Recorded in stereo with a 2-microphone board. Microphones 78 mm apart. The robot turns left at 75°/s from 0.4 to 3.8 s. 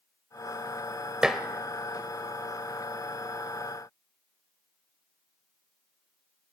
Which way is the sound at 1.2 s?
10° right (ahead or behind).